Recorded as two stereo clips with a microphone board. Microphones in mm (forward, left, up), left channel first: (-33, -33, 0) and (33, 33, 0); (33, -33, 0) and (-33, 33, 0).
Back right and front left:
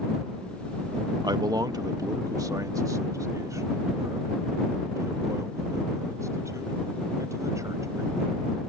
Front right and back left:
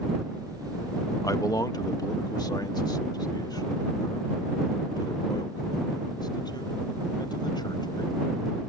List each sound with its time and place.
1.2 s a man speaking: 5° left; by 8.4 s 10° right